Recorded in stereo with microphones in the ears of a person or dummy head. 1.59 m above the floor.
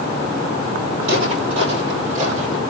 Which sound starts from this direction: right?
Footsteps, at 1.0 s.